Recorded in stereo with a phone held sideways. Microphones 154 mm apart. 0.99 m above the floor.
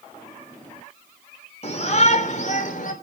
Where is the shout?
45° left (ahead or behind), 3 m; by 2.9 s 60° left (ahead or behind), 3.5 m.